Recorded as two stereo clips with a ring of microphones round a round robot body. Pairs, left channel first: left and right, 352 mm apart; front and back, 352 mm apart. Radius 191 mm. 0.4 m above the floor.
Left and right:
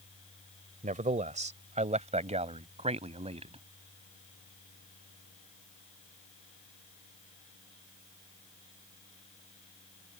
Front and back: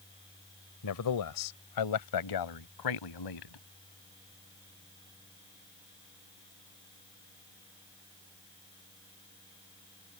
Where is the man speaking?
25° right; by 3.6 s 20° right.